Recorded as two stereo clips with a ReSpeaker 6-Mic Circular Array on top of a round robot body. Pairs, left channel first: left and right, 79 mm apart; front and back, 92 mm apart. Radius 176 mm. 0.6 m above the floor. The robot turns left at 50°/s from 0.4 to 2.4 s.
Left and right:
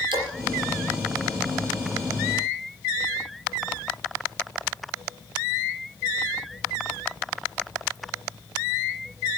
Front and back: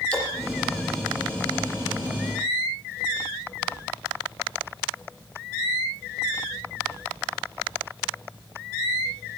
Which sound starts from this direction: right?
A splash, at 0.1 s.